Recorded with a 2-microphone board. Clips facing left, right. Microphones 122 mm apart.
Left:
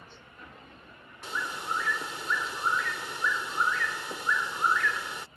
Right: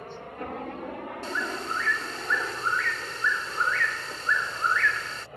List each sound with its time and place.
0.0 s a helicopter: 60° right (ahead or behind); by 5.4 s 75° right (ahead or behind)
1.2 s a bird: 15° left (ahead or behind)